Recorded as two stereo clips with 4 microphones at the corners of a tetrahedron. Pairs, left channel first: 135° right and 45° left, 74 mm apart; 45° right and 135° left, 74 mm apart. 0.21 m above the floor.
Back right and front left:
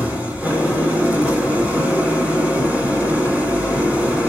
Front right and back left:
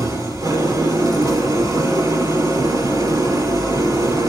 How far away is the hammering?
I don't hear hammering.